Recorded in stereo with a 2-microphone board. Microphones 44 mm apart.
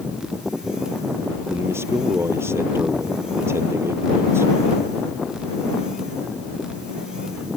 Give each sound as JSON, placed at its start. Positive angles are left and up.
{"t": 1.5, "sound": "a man speaking", "side_deg": -70}